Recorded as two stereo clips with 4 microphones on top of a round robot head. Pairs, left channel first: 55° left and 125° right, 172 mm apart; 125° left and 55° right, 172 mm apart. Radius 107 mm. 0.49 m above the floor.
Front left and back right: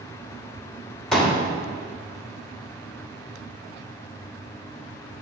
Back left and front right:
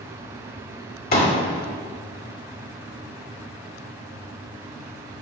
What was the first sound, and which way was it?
A pop, 145° left.